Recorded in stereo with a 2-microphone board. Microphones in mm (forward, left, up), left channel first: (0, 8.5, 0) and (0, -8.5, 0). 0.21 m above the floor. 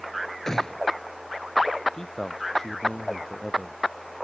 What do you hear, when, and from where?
0.5 s a gunshot: 40° left (ahead or behind)
1.9 s a man speaking: 45° left (ahead or behind)